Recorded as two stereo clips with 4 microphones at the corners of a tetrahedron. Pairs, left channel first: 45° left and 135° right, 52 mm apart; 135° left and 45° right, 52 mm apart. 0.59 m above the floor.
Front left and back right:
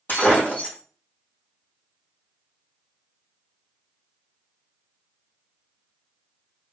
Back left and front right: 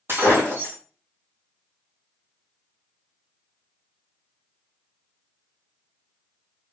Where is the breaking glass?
5° right, 1.7 m.